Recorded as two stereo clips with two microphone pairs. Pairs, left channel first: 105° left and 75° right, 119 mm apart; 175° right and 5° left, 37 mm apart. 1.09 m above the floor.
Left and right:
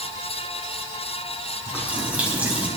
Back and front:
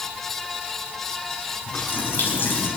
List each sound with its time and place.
1.7 s a running tap: 155° right, 4.5 m